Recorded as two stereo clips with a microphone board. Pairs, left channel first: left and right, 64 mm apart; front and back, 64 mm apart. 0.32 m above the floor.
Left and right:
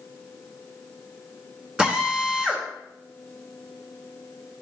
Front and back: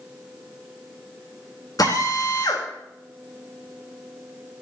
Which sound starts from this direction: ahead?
A drill, at 1.8 s.